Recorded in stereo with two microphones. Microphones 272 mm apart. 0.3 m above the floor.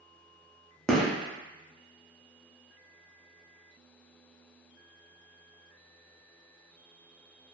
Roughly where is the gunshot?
Centre.